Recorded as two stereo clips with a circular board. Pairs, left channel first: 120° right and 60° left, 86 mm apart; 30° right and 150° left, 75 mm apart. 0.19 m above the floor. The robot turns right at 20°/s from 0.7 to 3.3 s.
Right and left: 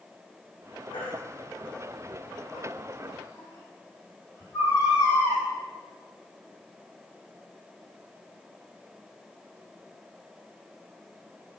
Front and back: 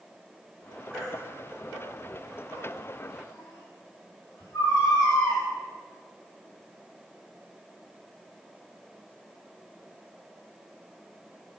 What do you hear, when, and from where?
0.9 s a baby crying: 115° right, 5 m; by 5.4 s 65° right, 5 m